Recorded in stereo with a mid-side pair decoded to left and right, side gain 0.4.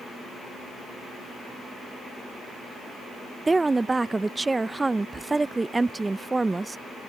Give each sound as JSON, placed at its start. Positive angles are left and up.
{"t": 3.5, "sound": "a woman speaking", "azimuth_deg": -20}